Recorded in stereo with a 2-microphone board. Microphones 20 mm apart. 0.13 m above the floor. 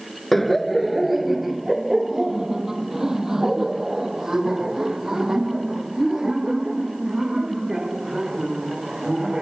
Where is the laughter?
10° left (ahead or behind); by 9.4 s 25° right (ahead or behind).